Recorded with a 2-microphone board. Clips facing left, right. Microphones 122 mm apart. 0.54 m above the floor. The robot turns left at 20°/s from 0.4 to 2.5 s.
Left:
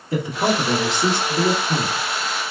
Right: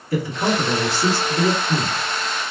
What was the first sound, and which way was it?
A man speaking, 25° left (ahead or behind).